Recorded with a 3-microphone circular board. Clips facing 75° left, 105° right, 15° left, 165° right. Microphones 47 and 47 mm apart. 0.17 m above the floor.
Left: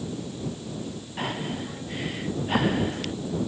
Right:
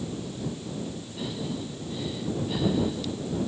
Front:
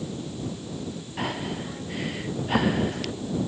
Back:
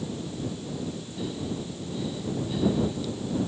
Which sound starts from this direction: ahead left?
Breathing, at 1.2 s.